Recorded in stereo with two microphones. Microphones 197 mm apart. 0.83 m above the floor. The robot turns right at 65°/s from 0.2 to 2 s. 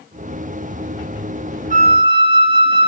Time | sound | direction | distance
1.7 | a flute | 40° right (ahead or behind) | 0.6 m